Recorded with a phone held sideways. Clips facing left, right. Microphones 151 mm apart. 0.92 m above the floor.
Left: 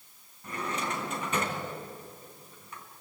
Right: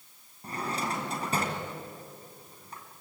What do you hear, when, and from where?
0.4 s a drawer: 35° right (ahead or behind), 3.5 m